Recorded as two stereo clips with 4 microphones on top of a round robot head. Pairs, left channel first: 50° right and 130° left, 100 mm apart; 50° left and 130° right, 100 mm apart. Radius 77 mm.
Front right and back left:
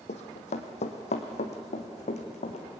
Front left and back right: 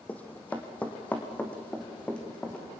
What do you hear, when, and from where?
0.1 s running footsteps: 30° right, 2 m